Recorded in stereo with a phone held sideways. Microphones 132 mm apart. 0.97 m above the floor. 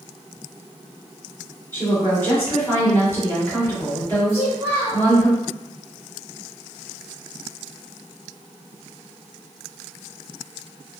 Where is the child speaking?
20° right (ahead or behind), 1.7 m.